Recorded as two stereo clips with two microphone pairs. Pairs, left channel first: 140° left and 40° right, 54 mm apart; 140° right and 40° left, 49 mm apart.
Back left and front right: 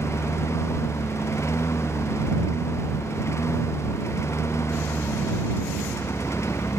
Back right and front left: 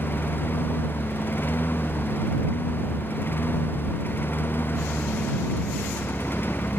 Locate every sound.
0.0 s a lawn mower: 175° left